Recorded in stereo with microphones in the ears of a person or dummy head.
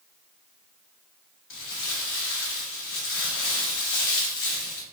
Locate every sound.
1.5 s crumpling: 60° left (ahead or behind), 1.0 m